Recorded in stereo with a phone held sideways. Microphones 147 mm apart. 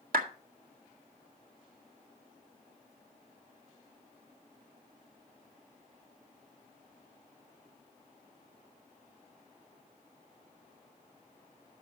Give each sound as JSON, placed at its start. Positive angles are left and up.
{"t": 0.1, "sound": "a clap", "side_deg": -85, "distance_m": 1.5}